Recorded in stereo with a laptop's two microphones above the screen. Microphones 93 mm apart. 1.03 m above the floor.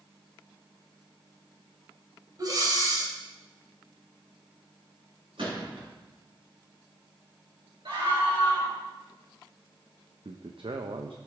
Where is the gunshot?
65° right (ahead or behind), 6.5 m.